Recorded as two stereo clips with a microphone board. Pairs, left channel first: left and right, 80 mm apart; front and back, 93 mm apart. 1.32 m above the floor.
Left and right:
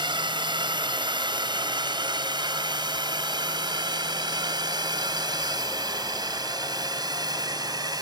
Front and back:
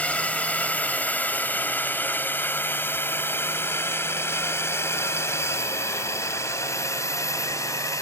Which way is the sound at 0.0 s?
75° right.